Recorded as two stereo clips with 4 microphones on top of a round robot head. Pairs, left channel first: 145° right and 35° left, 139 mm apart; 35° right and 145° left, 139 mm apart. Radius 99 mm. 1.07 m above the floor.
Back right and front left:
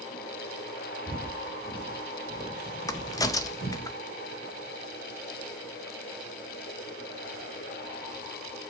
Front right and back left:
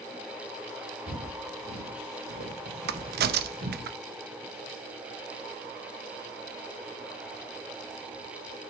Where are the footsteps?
135° left, 3.5 m; by 3.9 s 175° left, 3.5 m.